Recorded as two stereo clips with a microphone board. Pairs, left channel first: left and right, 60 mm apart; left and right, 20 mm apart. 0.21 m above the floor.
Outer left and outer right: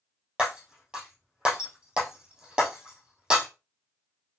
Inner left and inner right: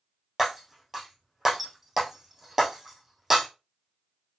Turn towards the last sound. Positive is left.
turn(degrees=-10)  # may be behind; listen again after turning